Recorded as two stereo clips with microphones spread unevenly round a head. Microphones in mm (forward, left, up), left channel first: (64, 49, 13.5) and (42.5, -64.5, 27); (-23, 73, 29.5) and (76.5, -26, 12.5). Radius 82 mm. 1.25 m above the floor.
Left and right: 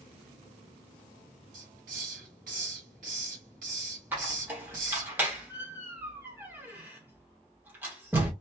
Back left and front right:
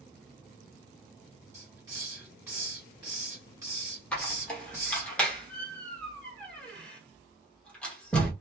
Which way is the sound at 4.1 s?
155° right.